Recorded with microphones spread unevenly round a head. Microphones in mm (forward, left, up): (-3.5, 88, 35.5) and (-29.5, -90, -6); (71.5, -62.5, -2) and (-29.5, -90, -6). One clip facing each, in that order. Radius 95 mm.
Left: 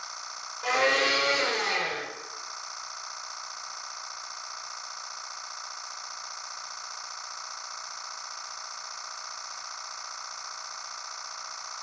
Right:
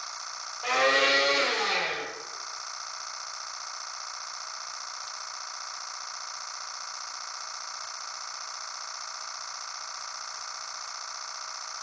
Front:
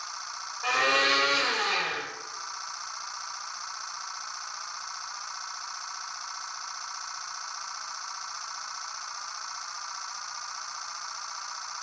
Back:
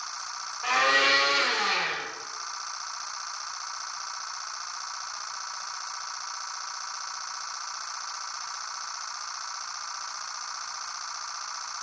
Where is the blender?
95° left, 1.3 m.